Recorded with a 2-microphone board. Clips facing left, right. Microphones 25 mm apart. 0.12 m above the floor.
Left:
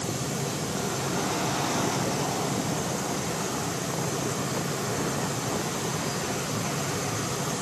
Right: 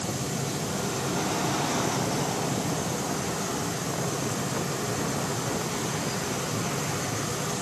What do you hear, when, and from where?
Only background noise.